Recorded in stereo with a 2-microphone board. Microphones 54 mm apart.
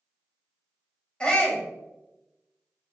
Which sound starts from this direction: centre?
A shout, at 1.2 s.